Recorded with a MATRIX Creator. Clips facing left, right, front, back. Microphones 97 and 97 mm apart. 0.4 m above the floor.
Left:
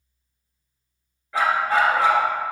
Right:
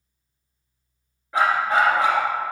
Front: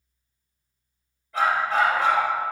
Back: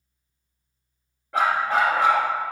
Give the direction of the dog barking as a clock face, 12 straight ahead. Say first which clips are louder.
Right 1 dB, back 1 dB; 5 o'clock.